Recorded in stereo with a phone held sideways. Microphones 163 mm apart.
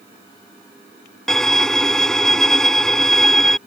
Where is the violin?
5° left (ahead or behind).